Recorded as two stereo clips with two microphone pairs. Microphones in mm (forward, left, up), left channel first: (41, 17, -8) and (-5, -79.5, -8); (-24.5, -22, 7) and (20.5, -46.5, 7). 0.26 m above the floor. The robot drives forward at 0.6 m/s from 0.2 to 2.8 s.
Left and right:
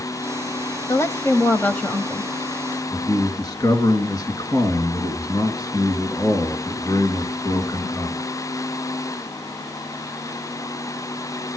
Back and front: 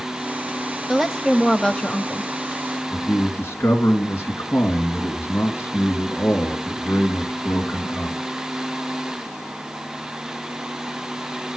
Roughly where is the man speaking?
Behind left.